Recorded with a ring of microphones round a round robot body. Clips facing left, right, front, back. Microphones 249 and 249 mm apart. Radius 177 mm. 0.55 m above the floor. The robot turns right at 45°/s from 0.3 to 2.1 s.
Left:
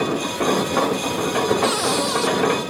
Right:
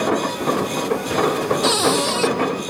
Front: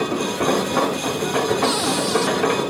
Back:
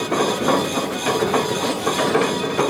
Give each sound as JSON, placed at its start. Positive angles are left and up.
{"t": 1.6, "sound": "a cupboard door", "azimuth_deg": -55}